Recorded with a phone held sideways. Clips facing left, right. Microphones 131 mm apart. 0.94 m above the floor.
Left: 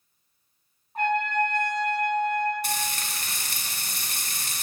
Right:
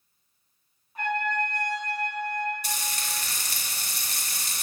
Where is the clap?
No clap in this recording.